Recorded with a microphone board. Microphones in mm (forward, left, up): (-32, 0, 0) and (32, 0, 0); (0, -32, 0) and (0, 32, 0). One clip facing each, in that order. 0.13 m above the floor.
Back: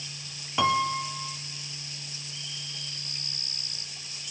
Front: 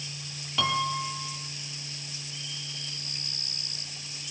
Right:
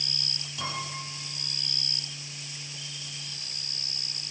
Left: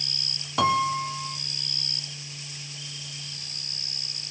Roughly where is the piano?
Behind left.